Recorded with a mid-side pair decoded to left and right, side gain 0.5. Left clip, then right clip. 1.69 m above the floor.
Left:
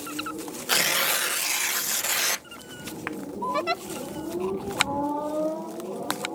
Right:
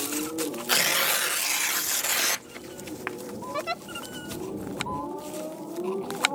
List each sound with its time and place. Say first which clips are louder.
0.7 s tearing paper: left 1 dB; straight ahead
3.5 s a giggle: left 3 dB; 20° left